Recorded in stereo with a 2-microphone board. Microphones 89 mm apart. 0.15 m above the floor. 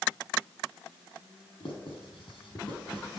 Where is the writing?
75° left (ahead or behind), 5 m.